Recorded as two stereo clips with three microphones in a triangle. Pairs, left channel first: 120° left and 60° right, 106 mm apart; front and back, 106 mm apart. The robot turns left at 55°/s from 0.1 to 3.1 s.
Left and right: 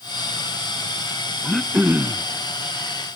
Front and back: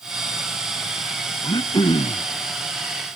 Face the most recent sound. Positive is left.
turn(degrees=-50)